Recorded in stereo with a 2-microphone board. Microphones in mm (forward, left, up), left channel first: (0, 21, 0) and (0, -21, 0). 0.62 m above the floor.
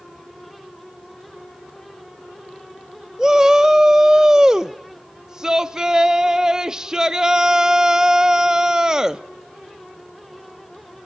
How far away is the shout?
About 0.6 m.